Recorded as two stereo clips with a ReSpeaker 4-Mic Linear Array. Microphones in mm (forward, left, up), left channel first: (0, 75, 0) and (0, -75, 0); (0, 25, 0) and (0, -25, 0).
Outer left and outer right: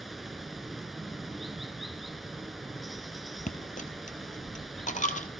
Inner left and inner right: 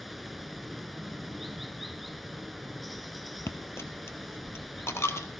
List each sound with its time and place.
0.0 s running water: centre (ahead or behind), 1.1 m
3.5 s a dropped coin: 55° left (ahead or behind), 1.7 m